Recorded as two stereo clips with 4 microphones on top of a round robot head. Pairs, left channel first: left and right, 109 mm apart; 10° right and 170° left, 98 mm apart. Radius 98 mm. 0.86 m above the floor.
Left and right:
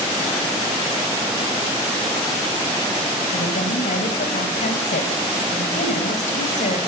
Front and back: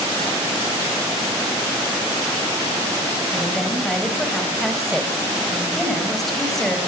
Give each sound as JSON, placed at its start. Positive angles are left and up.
{"t": 3.3, "sound": "a woman speaking", "azimuth_deg": 75, "distance_m": 6.0}